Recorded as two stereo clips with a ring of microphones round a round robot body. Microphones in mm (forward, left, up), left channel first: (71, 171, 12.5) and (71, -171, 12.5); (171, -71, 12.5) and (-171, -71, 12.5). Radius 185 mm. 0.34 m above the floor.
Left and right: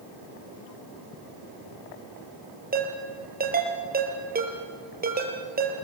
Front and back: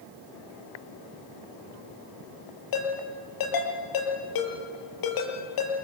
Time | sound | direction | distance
2.7 | a ringtone | 25° right | 5 m